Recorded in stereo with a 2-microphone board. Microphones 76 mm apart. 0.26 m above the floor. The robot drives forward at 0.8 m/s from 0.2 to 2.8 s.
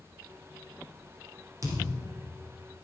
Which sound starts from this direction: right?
A thud, at 1.6 s.